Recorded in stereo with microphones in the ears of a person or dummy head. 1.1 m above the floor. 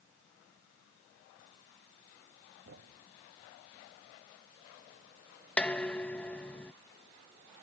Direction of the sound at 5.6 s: 5° left (ahead or behind).